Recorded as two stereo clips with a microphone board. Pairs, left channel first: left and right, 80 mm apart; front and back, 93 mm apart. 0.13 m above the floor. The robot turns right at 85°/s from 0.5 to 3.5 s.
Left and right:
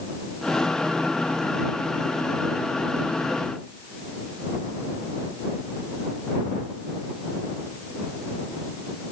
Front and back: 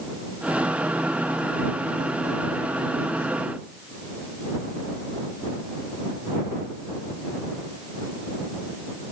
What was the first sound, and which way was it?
Only background noise.